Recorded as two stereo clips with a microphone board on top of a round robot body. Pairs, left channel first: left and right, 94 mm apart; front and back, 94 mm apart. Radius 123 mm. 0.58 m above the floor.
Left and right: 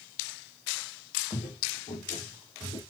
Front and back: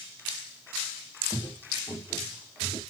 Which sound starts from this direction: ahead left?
Footsteps, at 1.3 s.